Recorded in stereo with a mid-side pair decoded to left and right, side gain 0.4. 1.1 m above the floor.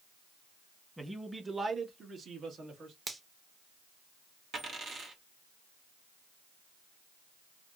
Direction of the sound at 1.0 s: 10° right.